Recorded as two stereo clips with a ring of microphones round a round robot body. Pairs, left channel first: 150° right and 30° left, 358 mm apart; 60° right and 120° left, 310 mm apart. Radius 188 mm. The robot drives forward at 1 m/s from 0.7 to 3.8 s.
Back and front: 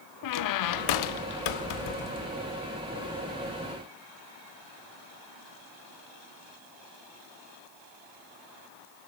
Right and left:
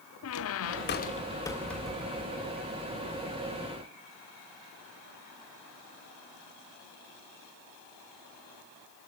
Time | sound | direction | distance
0.2 | a squeak | 110° right | 1.0 m